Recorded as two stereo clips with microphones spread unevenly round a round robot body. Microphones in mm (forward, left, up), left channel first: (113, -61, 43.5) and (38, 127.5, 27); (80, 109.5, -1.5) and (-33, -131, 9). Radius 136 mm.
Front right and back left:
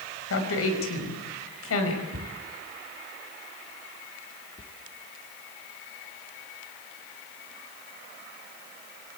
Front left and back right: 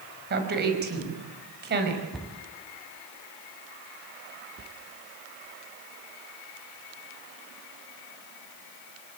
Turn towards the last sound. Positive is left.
turn(degrees=-115)